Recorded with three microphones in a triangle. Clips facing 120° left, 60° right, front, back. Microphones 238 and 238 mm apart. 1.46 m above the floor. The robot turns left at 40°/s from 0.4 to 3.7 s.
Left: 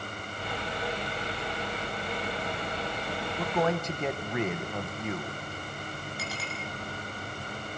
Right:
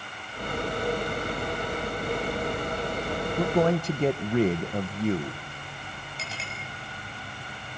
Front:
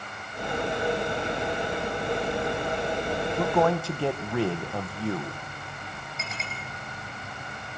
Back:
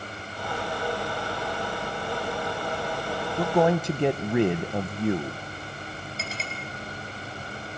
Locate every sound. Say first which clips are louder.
3.4 s a man speaking: right 5 dB, back 3 dB; 95° right, 0.8 m; by 5.4 s 110° right, 0.8 m
6.2 s a clink: left 3 dB, back 1 dB; 125° right, 6 m